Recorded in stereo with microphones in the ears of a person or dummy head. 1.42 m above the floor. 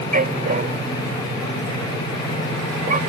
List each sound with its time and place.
0.1 s a dog barking: 40° right (ahead or behind)